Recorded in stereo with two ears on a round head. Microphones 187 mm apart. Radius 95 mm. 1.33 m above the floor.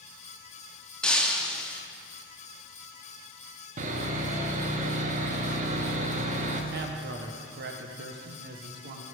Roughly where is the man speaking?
Right.